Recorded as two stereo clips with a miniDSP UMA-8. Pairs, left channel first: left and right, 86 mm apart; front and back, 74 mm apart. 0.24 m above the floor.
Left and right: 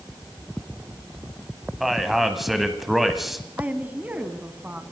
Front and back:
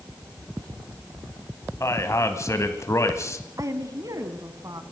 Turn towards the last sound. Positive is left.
turn(degrees=-160)